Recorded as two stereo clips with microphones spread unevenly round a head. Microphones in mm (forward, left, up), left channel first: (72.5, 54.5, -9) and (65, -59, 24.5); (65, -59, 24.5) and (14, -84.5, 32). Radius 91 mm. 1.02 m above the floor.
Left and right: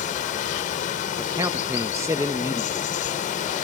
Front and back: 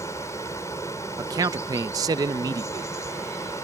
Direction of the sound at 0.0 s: 90° left.